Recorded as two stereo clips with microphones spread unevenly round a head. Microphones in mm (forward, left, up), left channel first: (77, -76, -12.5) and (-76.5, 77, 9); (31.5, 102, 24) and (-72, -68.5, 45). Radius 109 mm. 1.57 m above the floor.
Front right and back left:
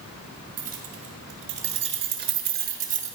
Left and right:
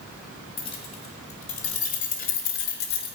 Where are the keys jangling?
125° left, 2.5 m; by 3.2 s 85° left, 1.4 m.